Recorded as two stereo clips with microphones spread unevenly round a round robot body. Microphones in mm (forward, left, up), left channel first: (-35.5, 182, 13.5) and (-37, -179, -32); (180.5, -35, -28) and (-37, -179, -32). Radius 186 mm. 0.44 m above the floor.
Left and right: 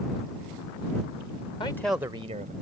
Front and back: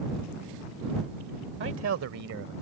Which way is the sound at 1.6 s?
170° left.